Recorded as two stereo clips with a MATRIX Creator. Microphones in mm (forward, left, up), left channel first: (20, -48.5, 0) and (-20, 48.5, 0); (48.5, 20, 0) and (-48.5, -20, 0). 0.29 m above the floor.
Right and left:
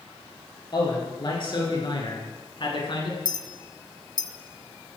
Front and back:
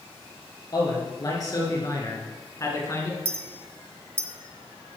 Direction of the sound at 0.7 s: 25° right.